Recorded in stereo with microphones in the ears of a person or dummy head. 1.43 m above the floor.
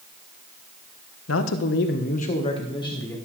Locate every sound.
1.3 s a man speaking: 85° left, 1.2 m; by 3.1 s 15° left (ahead or behind), 2 m